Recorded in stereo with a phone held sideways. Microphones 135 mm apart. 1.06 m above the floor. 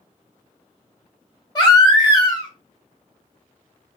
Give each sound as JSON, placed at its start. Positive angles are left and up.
{"t": 1.6, "sound": "a baby crying", "side_deg": 30, "distance_m": 1.1}